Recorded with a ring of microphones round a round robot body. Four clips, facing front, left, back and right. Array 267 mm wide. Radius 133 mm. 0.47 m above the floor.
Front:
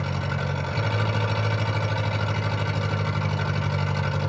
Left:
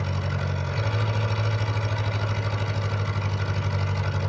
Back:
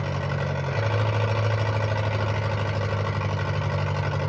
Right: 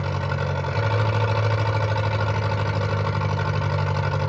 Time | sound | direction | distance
0.0 | an engine running | 110° right | 1.9 m